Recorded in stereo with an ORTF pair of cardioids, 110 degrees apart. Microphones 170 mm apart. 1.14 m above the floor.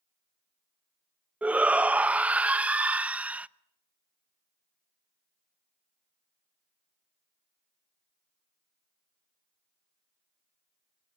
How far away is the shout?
About 0.7 m.